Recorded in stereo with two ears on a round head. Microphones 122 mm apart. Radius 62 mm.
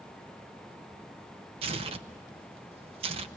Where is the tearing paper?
45° right (ahead or behind), 0.9 m.